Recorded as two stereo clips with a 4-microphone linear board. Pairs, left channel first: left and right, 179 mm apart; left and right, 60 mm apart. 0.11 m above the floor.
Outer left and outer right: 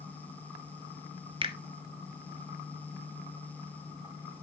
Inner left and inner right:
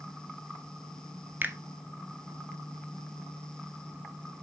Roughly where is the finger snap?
Right.